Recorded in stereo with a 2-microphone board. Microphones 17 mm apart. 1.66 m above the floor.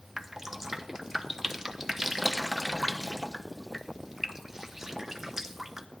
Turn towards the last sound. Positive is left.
turn(degrees=-25)  # may be behind; listen again after turning